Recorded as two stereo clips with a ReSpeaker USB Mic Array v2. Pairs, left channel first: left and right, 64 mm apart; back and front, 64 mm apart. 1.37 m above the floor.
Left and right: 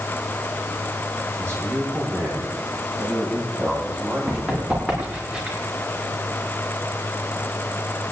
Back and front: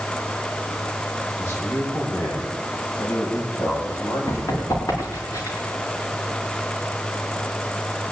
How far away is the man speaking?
About 9.5 m.